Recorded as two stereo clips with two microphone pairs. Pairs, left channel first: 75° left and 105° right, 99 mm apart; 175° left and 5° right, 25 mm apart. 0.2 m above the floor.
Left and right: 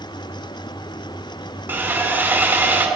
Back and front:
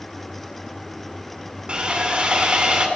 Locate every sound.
1.7 s sawing: 40° right, 1.6 m